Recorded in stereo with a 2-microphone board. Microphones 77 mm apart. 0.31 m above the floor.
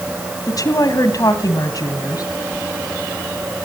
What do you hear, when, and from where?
0.5 s a woman speaking: 50° left (ahead or behind), 2 m